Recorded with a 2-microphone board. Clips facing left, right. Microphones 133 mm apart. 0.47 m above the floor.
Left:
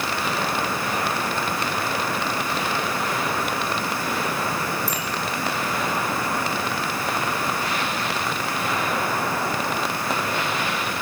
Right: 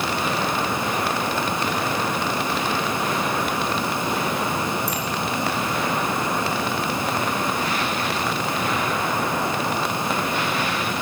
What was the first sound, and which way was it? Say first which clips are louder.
A bicycle bell: right 2 dB; centre (ahead or behind).